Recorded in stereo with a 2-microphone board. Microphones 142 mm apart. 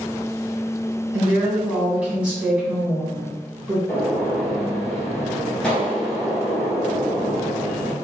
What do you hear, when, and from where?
1.1 s a woman speaking: 10° right (ahead or behind), 1.5 m
3.9 s a gunshot: 5° left (ahead or behind), 1.4 m